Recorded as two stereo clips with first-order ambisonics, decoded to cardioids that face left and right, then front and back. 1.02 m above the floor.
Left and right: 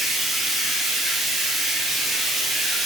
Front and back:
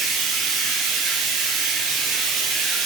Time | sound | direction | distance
0.0 | running water | 175° right | 5.5 m